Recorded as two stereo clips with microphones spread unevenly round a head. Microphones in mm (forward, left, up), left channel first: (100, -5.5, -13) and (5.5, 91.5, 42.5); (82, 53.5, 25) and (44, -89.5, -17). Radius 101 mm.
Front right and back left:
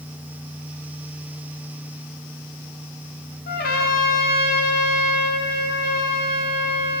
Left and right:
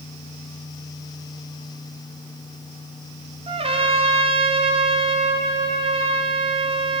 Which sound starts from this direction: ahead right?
A trumpet, at 3.5 s.